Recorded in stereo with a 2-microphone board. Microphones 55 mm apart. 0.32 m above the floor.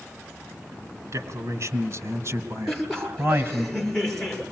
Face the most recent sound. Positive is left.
turn(degrees=5)  # may be behind; listen again after turning